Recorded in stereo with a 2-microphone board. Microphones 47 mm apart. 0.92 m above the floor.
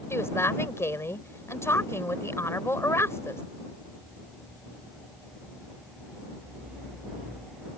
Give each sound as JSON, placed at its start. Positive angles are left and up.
{"t": 0.1, "sound": "a woman speaking", "side_deg": 65}